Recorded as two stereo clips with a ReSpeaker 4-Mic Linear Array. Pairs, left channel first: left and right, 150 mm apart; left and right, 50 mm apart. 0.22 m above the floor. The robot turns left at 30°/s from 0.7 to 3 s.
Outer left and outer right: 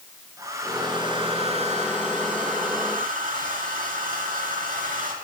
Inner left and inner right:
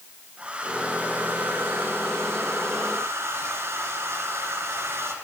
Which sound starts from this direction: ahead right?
A hair dryer, at 0.4 s.